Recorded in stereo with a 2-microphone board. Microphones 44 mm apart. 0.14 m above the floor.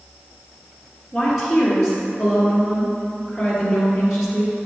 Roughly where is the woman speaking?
Centre.